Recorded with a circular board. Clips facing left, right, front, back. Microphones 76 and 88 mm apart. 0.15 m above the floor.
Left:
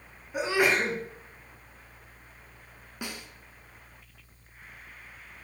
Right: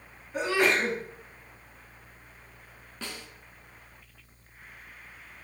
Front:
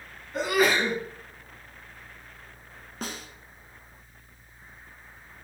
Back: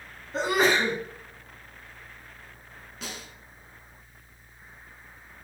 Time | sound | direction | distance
0.3 | a sneeze | 155° left | 1.7 m
3.0 | a snare drum | 20° left | 1.1 m